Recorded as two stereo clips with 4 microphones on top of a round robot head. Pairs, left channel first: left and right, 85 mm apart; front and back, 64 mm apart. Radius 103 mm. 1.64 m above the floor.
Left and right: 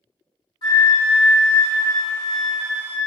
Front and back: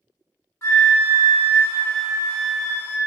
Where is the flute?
40° left, 0.5 m.